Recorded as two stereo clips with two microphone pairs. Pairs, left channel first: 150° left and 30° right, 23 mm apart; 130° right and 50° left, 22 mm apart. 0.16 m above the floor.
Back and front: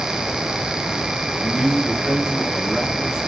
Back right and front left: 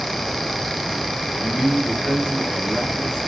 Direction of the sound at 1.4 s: 80° right.